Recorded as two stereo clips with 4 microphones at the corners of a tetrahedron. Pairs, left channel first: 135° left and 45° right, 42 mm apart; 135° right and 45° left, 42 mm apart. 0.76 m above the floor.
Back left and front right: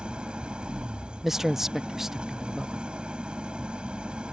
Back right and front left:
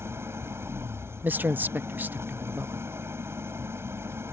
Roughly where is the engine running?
Ahead left.